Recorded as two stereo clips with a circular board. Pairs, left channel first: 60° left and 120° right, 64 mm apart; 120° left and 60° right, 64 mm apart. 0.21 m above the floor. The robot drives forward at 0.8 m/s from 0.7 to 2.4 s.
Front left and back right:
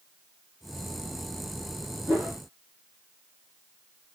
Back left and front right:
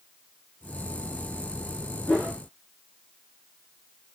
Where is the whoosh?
175° right, 1.1 m.